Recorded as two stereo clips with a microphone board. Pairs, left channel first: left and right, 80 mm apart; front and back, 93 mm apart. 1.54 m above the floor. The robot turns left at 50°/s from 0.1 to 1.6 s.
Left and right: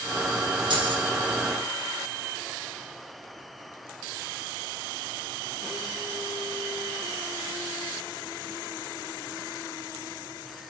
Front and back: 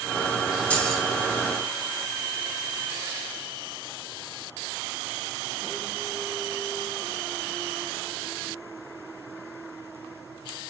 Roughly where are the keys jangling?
Right.